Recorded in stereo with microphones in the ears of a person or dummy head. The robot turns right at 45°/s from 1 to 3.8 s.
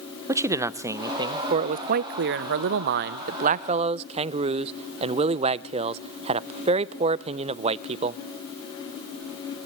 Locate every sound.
0.3 s a man speaking: 165° right, 0.5 m; by 8.2 s 40° right, 0.5 m